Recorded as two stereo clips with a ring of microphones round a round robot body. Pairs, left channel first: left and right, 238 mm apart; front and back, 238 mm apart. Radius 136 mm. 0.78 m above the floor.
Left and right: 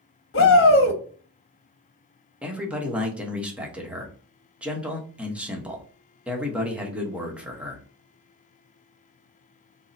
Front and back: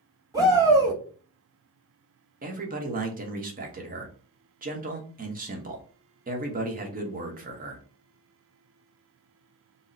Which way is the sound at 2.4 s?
170° right.